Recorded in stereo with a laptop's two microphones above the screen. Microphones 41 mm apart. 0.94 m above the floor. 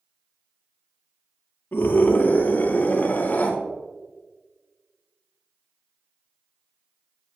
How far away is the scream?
About 1.9 m.